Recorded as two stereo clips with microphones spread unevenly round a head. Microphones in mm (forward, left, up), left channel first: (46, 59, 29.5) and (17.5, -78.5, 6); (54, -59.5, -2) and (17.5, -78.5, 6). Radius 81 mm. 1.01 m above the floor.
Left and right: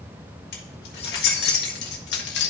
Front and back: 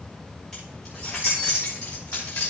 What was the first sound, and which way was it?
Keys jangling, 115° left.